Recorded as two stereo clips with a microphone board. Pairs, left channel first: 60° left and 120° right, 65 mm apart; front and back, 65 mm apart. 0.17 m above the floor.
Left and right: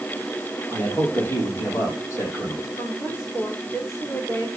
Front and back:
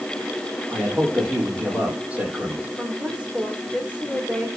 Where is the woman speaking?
110° left, 9.5 m.